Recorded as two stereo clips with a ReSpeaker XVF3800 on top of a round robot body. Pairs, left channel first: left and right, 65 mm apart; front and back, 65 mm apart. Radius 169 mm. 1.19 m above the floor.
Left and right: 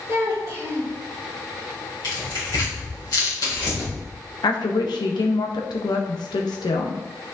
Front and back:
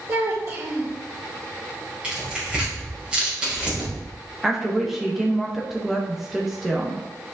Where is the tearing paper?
105° left, 3 m.